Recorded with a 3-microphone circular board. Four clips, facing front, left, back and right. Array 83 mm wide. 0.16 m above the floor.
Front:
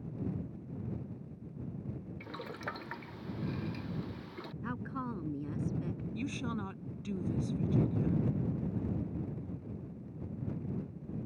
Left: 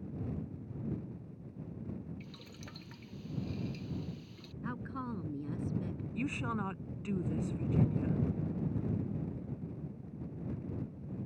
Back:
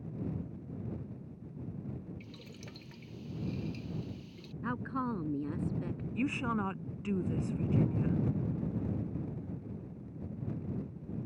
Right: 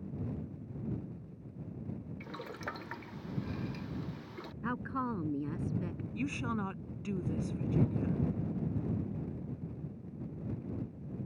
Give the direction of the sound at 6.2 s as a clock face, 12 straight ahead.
6 o'clock.